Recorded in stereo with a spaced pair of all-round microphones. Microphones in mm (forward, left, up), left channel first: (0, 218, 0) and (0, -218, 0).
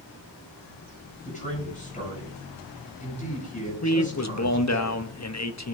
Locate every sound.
1.2 s a man speaking: 15° left (ahead or behind), 8 m
3.8 s a man speaking: 40° left (ahead or behind), 0.9 m